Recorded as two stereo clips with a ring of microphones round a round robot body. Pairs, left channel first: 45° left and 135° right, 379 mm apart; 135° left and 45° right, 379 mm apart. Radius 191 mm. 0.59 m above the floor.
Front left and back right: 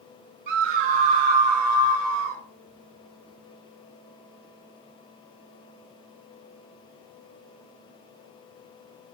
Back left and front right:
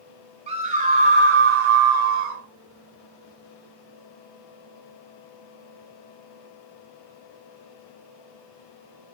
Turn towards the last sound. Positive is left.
turn(degrees=-90)